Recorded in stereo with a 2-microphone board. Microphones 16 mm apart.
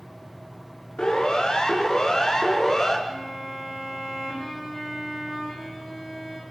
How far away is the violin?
About 8 m.